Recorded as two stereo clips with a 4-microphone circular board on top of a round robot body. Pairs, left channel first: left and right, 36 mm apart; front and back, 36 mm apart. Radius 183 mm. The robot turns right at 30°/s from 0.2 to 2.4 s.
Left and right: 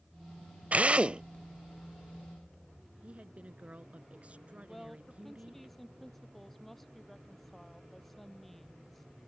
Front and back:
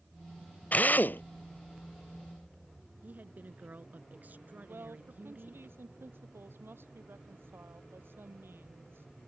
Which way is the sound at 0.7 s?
45° right.